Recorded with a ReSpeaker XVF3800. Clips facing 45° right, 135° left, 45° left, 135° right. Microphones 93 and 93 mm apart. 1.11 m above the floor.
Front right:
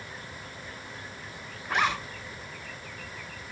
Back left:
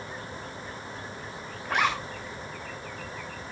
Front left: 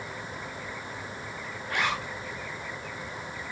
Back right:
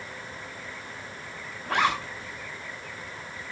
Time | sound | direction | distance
1.6 | a zipper | 135° right | 7 m